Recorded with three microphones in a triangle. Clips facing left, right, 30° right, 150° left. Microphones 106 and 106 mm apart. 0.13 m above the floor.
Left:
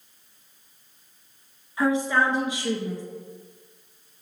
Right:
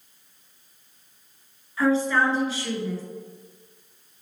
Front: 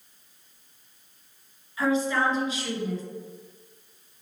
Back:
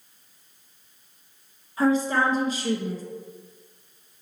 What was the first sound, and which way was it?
A woman speaking, 155° left.